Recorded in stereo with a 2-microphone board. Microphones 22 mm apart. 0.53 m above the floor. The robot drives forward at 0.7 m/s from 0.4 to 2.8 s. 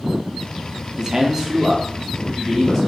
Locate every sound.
1.0 s a man speaking: 25° right (ahead or behind), 0.7 m; by 2.8 s 10° right (ahead or behind), 1.5 m